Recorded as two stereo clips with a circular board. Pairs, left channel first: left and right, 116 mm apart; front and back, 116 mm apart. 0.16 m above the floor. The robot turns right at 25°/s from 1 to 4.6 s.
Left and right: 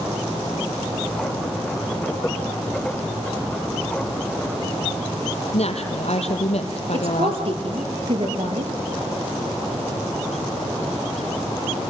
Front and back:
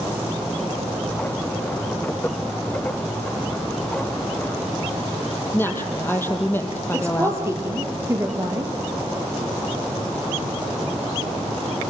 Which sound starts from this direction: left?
A woman speaking, at 5.5 s.